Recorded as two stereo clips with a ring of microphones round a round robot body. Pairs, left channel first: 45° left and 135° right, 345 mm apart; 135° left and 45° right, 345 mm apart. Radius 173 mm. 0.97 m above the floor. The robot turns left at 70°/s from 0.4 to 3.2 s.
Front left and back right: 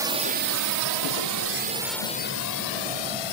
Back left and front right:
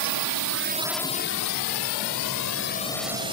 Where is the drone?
55° right; by 3.3 s 30° left.